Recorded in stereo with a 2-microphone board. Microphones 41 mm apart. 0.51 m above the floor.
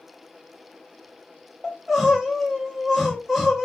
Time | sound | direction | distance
1.6 | crying | 5° right (ahead or behind) | 1.1 m